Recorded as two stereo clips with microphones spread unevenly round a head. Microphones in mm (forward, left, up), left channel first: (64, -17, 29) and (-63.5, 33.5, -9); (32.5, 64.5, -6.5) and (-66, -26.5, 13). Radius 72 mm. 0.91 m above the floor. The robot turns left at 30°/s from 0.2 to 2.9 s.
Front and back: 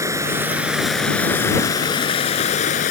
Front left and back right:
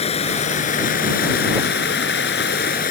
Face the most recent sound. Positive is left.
turn(degrees=5)